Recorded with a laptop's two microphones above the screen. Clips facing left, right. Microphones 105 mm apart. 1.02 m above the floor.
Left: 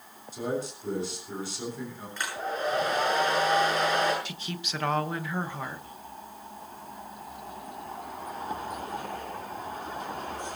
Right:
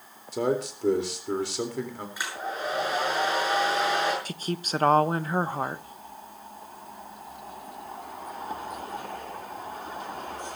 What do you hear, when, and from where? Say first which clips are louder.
0.3 s a man speaking: right 5 dB; 80° right, 4 m
2.2 s a hair dryer: left 2 dB; 10° right (ahead or behind), 7 m
4.2 s a woman speaking: right 6 dB; 40° right (ahead or behind), 1.0 m